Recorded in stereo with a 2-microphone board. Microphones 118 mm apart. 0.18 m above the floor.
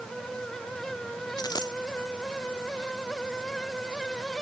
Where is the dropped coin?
35° left (ahead or behind).